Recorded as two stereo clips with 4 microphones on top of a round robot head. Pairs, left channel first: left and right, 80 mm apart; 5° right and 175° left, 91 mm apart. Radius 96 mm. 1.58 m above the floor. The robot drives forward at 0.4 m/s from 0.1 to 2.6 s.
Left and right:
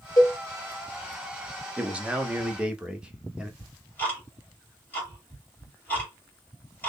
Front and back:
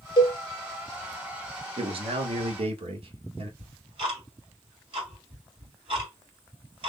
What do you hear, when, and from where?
0.2 s a cowbell: 35° left, 1.3 m
1.8 s a man speaking: 165° right, 1.0 m; by 3.5 s 170° right, 1.3 m
3.6 s ticking: 155° left, 2.5 m